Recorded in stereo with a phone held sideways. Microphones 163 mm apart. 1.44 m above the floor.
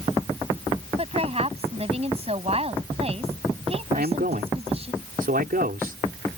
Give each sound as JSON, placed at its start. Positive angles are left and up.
{"t": 1.0, "sound": "a woman speaking", "side_deg": -40}
{"t": 3.9, "sound": "a man speaking", "side_deg": -70}